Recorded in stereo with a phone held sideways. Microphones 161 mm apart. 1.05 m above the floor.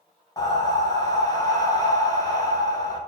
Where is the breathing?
25° left (ahead or behind), 0.8 m.